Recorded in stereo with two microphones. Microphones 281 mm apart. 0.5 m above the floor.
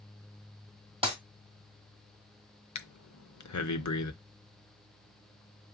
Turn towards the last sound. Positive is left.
turn(degrees=80)